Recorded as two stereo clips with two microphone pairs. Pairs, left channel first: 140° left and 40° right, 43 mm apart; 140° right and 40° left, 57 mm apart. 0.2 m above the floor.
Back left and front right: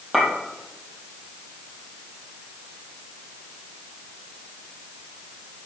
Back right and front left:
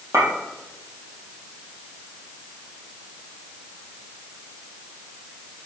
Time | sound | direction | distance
0.1 | a clink | 45° left | 5 m